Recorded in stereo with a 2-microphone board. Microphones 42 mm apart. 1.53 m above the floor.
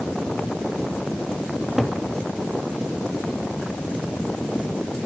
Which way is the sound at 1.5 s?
10° right (ahead or behind).